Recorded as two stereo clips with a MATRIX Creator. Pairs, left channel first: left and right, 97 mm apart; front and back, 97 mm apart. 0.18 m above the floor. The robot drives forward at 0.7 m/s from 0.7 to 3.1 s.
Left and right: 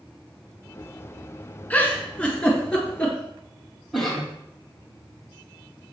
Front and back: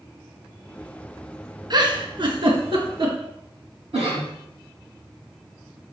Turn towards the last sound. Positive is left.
turn(degrees=180)